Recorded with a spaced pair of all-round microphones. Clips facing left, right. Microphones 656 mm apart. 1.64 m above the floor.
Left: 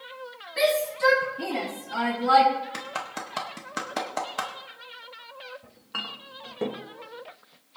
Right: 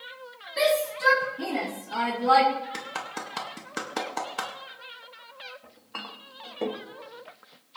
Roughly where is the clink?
Left.